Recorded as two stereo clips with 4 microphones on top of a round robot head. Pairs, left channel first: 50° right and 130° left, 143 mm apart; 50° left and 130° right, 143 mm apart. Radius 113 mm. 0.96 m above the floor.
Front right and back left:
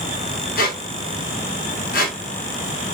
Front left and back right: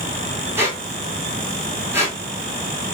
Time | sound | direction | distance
0.6 | a squeak | 60° right | 1.2 m